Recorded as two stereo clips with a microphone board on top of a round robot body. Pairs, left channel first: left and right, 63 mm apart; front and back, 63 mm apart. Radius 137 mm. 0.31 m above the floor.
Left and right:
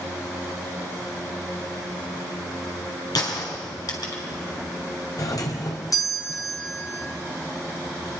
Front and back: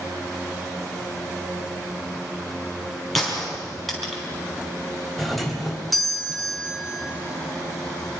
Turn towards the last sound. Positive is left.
turn(degrees=90)